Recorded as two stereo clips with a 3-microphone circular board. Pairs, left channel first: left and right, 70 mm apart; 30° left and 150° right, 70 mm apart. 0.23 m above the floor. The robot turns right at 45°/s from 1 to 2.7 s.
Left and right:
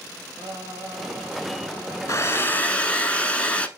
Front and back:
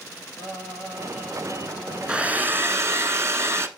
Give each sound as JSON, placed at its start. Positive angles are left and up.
{"t": 0.4, "sound": "singing", "azimuth_deg": -80, "distance_m": 3.0}
{"t": 2.1, "sound": "a hair dryer", "azimuth_deg": 135, "distance_m": 0.7}